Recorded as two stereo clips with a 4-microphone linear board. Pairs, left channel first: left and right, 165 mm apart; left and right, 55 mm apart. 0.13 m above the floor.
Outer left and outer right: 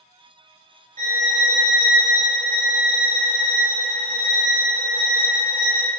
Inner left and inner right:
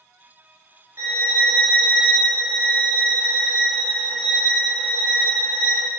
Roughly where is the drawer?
I don't hear a drawer.